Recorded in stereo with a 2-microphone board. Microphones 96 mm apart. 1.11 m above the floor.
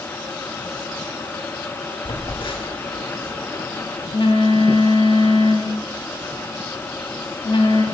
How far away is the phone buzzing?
About 1.1 m.